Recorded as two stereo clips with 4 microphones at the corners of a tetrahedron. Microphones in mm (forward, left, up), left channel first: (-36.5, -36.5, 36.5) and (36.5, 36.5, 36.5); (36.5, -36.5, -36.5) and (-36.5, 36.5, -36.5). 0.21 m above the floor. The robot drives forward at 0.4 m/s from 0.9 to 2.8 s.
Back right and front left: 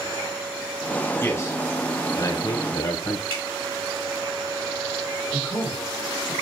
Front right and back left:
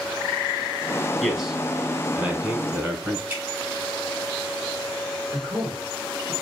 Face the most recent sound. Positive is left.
turn(degrees=165)